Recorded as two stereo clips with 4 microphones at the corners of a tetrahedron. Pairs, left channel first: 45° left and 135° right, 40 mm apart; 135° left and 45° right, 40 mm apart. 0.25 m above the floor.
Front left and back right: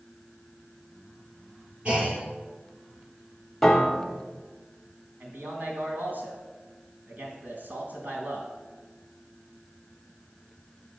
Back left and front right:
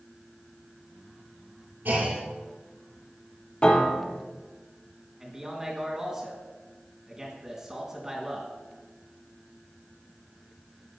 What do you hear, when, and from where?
1.9 s a clunk: 75° right, 3.5 m
3.6 s a piano: 130° left, 1.1 m
5.2 s a man speaking: 120° right, 2.5 m